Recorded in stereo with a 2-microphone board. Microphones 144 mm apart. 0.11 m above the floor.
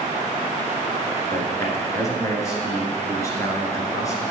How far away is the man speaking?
About 1.5 m.